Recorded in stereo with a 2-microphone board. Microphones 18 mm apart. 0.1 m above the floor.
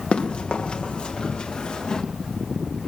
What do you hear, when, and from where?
0.1 s running footsteps: 70° left (ahead or behind), 3.5 m; by 2.0 s 45° left (ahead or behind), 3.5 m